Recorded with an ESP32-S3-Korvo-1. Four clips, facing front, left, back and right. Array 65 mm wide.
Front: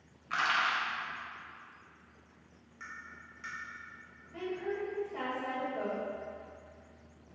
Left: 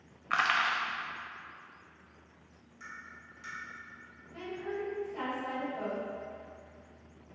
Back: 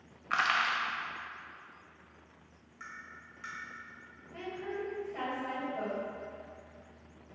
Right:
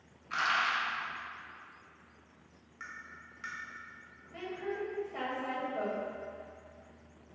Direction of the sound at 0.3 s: 125° left.